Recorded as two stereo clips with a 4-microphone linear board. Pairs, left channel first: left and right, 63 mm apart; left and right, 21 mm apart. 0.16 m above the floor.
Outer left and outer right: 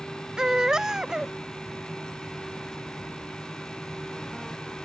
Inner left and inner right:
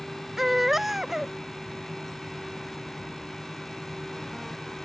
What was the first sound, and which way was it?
A baby crying, 10° right (ahead or behind).